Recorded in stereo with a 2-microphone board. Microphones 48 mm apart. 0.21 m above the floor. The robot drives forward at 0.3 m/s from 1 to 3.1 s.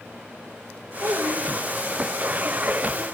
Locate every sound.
1.0 s a child speaking: 55° right (ahead or behind), 2 m; by 3.0 s 60° right (ahead or behind), 2.0 m